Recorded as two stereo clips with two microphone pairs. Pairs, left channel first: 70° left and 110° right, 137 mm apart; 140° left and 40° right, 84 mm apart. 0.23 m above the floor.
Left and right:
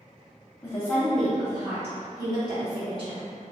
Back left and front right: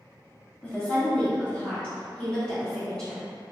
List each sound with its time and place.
0.6 s a woman speaking: 100° left, 1.4 m; by 3.2 s 145° right, 2 m